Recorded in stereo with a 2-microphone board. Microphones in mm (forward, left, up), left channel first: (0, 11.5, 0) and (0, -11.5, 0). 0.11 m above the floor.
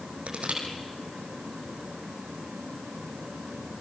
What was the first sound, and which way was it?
Crushing, 60° right (ahead or behind).